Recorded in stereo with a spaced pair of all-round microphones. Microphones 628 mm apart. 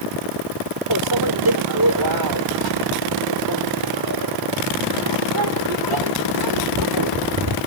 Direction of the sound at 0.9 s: 35° right (ahead or behind).